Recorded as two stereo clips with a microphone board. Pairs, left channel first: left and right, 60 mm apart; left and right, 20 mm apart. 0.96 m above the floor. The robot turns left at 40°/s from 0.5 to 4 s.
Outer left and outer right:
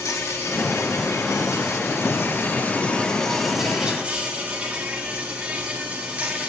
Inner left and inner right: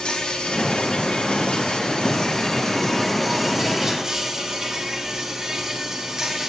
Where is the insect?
120° left, 1.9 m; by 6.5 s 20° right, 1.9 m.